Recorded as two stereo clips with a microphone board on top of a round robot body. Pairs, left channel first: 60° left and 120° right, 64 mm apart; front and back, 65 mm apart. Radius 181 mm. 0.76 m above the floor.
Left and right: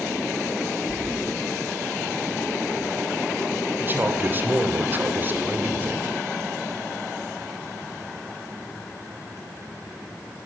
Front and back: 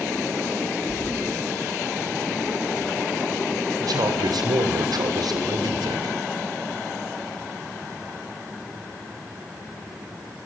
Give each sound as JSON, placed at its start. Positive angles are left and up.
{"t": 0.9, "sound": "keys jangling", "azimuth_deg": 180, "distance_m": 6.0}
{"t": 3.8, "sound": "a man speaking", "azimuth_deg": 180, "distance_m": 3.0}